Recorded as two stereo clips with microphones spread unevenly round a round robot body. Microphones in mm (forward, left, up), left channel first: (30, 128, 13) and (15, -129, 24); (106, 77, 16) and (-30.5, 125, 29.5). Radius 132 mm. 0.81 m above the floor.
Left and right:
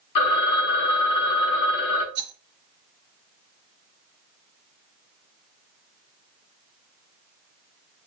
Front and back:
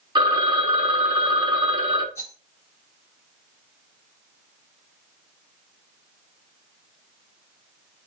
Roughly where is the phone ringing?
Left.